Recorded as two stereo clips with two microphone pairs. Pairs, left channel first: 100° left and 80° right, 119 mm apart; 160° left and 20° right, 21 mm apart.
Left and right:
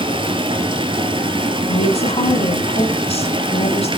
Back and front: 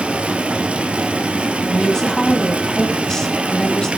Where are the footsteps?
No footsteps in this recording.